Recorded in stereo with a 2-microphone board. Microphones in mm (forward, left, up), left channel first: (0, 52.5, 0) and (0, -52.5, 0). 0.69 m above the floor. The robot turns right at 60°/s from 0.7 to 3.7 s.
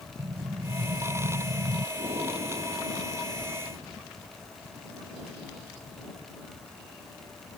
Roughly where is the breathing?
Behind right.